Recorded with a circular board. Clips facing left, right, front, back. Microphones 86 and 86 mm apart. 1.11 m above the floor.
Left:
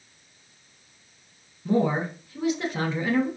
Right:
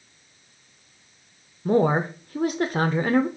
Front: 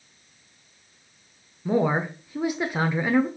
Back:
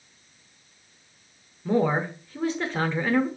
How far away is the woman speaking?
About 0.6 m.